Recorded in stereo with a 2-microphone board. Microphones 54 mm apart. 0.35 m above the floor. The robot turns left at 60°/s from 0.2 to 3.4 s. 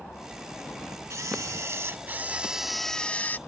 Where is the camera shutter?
80° right; by 3.4 s 140° left.